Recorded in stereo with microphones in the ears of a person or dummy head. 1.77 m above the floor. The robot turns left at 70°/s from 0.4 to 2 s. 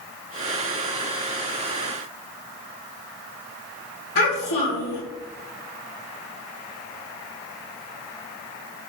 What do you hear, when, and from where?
4.2 s a child speaking: 55° left (ahead or behind), 1.9 m